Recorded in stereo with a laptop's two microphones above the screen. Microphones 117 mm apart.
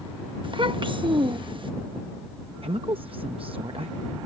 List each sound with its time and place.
0.4 s a child speaking: 50° right (ahead or behind)
2.6 s a woman speaking: 55° right (ahead or behind)